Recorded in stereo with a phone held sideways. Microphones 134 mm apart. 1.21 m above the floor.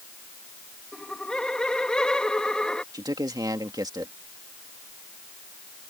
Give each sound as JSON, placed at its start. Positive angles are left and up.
{"t": 0.9, "sound": "laughter", "side_deg": 5}
{"t": 2.9, "sound": "a man speaking", "side_deg": -30}